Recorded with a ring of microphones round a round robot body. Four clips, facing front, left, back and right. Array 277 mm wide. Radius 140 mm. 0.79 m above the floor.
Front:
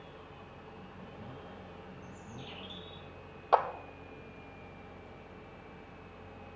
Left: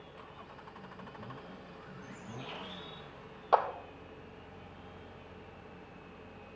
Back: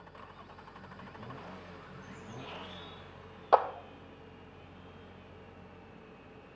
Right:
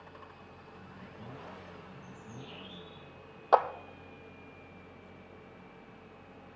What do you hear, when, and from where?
2.0 s a bird: 80° left, 3 m
3.5 s a clap: 135° right, 0.6 m